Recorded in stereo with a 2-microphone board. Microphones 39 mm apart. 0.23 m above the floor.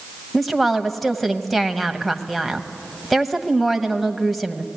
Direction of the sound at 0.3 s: Centre (ahead or behind).